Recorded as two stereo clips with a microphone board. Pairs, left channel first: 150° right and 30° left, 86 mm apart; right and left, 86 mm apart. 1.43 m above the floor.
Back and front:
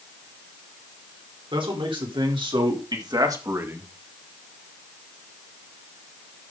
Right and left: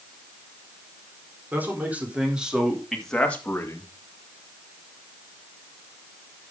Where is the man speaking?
20° left, 4.5 m; by 3.9 s 40° right, 2.0 m.